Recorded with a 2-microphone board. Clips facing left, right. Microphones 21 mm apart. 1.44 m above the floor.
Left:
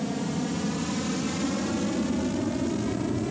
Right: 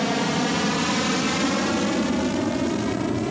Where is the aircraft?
50° right (ahead or behind); by 3.3 s 25° right (ahead or behind).